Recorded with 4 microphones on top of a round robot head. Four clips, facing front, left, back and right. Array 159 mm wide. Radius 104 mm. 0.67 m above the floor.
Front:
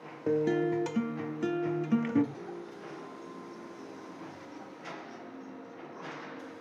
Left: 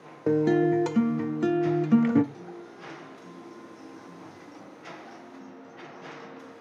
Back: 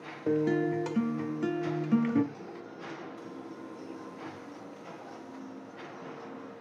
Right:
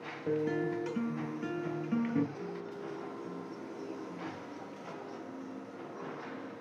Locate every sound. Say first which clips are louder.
0.3 s a guitar: left 10 dB, even; 85° left, 0.7 m
2.3 s a guitar: right 2 dB, front 1 dB; 120° left, 4 m